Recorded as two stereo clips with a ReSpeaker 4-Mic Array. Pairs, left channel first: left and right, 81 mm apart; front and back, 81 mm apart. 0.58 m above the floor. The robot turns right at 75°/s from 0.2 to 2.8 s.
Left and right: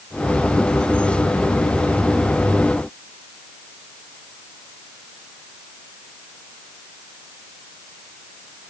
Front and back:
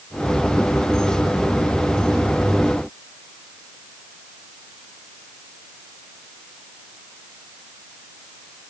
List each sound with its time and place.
Only background noise.